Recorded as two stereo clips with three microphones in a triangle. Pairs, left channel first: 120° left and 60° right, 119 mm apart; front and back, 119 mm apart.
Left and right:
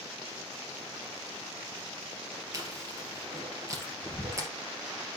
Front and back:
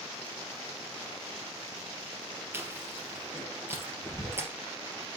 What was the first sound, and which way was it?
Chewing, 115° right.